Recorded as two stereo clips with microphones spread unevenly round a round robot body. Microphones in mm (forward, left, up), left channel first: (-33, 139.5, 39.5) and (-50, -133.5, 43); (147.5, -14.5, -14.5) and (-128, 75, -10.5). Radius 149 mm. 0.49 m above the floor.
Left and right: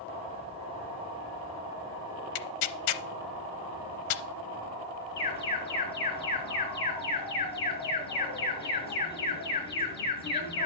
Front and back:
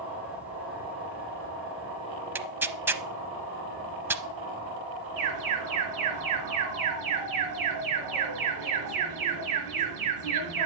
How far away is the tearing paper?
About 0.6 m.